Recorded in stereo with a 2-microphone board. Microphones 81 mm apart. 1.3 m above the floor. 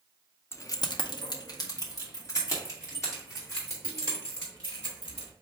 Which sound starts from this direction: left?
Keys jangling, at 0.5 s.